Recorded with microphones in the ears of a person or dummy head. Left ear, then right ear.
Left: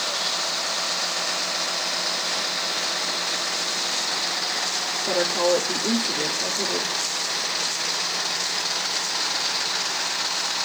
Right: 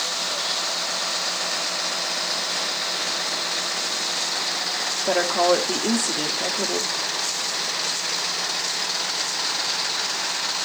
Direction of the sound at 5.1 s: 50° right (ahead or behind).